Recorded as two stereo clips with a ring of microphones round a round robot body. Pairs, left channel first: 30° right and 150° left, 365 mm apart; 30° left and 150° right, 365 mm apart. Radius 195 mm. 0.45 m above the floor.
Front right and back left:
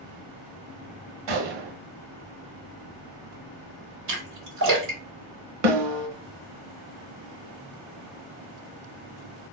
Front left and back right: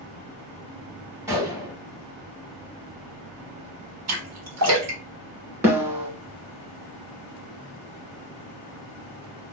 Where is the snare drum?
125° left, 1.0 m.